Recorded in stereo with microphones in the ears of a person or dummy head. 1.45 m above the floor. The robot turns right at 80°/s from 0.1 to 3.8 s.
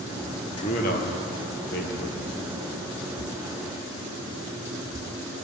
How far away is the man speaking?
About 1.1 m.